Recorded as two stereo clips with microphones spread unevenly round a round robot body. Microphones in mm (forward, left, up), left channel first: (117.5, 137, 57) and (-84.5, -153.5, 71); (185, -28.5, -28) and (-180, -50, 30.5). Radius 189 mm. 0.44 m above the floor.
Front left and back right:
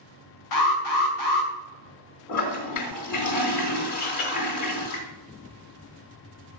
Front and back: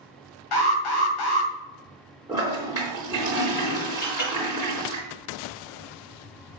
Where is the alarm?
25° left, 2 m.